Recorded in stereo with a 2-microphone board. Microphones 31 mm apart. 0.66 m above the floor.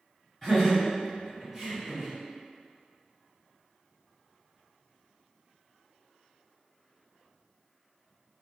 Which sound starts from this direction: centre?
Laughter, at 0.4 s.